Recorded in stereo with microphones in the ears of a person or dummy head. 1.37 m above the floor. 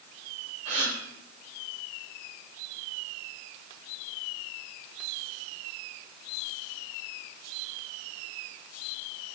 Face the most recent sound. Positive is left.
turn(degrees=-45)  # may be behind; listen again after turning